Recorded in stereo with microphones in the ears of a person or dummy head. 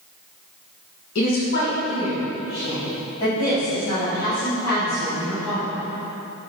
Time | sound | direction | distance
1.1 | a woman speaking | 55° left (ahead or behind) | 1.6 m